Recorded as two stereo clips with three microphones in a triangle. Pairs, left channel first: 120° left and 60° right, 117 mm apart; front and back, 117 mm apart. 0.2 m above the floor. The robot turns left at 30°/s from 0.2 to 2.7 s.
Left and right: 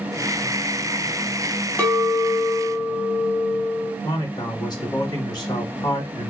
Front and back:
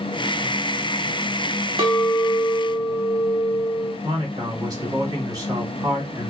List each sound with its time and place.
1.8 s a clink: 170° right, 1.5 m; by 3.9 s 160° left, 1.5 m
4.0 s a man speaking: 145° left, 1.9 m